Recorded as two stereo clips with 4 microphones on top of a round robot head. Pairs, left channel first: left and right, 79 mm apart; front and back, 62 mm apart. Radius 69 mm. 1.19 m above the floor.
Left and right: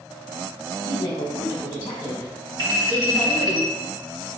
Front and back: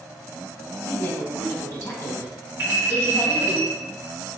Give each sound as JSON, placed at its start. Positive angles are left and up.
{"t": 0.8, "sound": "a woman speaking", "azimuth_deg": 45, "distance_m": 1.3}
{"t": 2.6, "sound": "a clink", "azimuth_deg": -120, "distance_m": 1.9}